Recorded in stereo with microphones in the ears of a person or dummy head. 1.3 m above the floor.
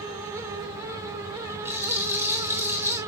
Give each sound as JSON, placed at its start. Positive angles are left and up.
{"t": 1.6, "sound": "a rattle", "side_deg": -10, "distance_m": 3.0}